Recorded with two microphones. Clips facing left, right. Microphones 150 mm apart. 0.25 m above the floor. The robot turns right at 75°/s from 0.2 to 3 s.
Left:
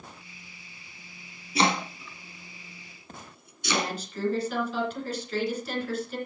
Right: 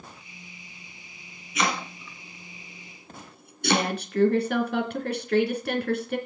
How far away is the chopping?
About 2.5 m.